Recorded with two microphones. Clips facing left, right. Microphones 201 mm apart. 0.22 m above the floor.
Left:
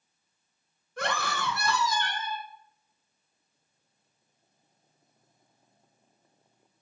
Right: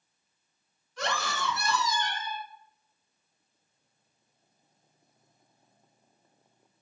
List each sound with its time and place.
1.0 s a scream: 55° left (ahead or behind), 2 m; by 2.5 s 65° left (ahead or behind), 2.5 m